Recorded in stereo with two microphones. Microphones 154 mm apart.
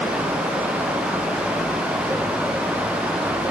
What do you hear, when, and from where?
Only background noise.